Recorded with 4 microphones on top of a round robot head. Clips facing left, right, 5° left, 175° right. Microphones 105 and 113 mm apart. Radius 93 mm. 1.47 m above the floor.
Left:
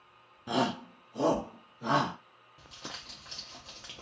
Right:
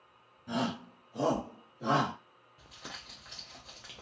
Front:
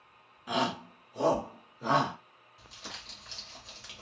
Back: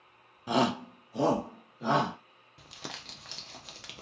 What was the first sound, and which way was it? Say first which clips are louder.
A shout: left 4 dB, back 4 dB; 120° left.